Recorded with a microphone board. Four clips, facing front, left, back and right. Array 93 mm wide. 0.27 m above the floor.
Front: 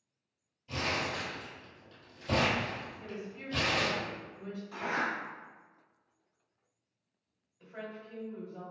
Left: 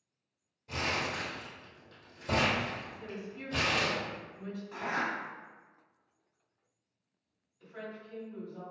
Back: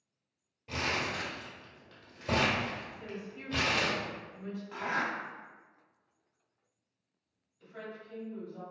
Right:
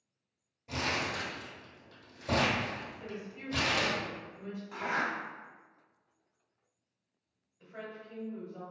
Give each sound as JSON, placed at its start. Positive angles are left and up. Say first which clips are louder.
{"t": 0.7, "sound": "crumpling", "louder": "even, even", "azimuth_deg": -165, "distance_m": 1.6}
{"t": 3.0, "sound": "a woman speaking", "louder": "even, even", "azimuth_deg": -120, "distance_m": 1.4}
{"t": 4.7, "sound": "a zipper", "louder": "right 1 dB, even", "azimuth_deg": -155, "distance_m": 1.4}
{"t": 7.6, "sound": "a woman speaking", "louder": "even, front 1 dB", "azimuth_deg": -40, "distance_m": 1.4}